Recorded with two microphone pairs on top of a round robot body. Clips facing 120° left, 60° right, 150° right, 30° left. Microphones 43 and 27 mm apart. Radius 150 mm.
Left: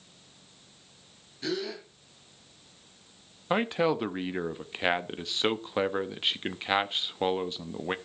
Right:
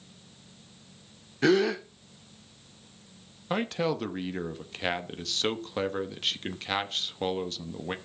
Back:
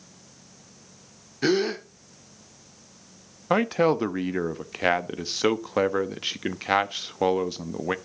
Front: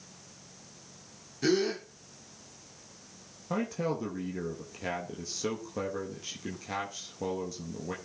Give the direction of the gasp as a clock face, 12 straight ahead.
3 o'clock.